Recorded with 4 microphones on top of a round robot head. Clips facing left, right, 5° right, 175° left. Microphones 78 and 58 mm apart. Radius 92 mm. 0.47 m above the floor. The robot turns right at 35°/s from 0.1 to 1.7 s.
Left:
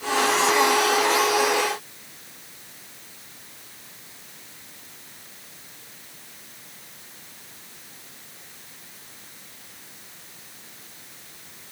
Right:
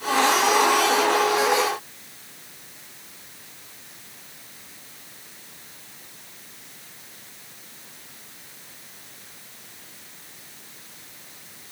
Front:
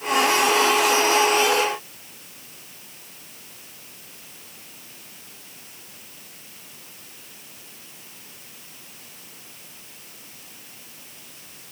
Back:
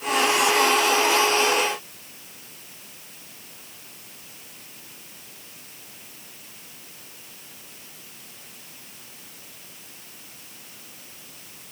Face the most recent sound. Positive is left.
No sound to turn to.